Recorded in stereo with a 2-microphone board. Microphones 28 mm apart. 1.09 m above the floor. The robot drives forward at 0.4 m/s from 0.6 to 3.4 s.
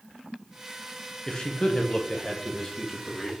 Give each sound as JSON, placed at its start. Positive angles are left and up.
{"t": 1.3, "sound": "a man speaking", "side_deg": 25, "distance_m": 0.7}